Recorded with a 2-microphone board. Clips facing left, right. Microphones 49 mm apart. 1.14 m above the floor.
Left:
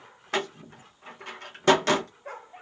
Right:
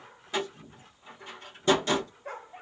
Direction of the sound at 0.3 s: 65° left (ahead or behind).